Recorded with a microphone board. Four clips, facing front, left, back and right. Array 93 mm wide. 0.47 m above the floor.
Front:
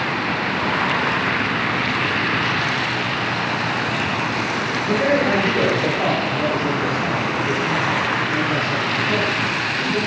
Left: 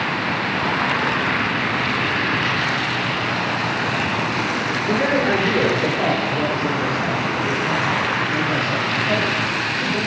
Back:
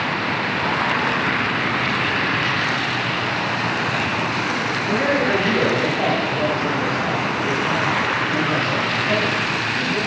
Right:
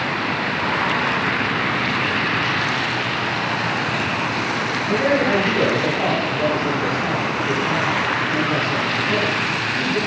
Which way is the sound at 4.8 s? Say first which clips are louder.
Right 1 dB, front 2 dB; 95° left.